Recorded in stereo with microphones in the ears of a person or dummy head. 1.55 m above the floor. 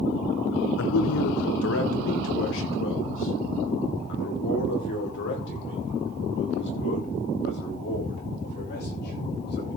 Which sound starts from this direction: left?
A man speaking, at 0.8 s.